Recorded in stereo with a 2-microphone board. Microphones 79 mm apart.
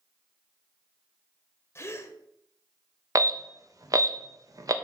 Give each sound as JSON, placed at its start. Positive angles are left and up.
{"t": 1.8, "sound": "a gasp", "side_deg": 35, "distance_m": 0.8}
{"t": 3.1, "sound": "an alarm", "side_deg": -45, "distance_m": 0.8}